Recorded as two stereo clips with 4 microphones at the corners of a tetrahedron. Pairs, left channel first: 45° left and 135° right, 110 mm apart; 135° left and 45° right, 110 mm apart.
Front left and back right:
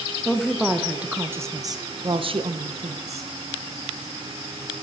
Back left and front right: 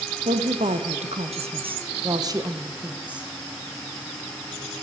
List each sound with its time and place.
0.2 s a woman speaking: 40° right, 1.2 m; by 3.3 s 125° right, 1.1 m